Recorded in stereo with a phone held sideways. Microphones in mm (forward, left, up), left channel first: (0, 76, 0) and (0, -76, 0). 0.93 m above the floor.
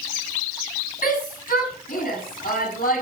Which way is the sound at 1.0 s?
60° left (ahead or behind).